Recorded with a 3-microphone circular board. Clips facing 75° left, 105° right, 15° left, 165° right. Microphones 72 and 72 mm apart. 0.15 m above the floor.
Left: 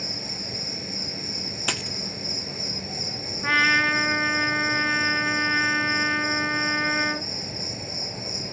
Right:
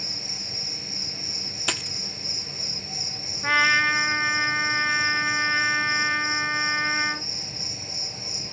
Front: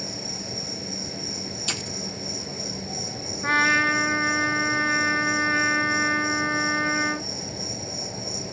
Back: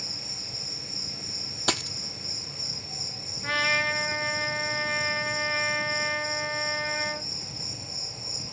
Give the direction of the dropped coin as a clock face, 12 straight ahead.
7 o'clock.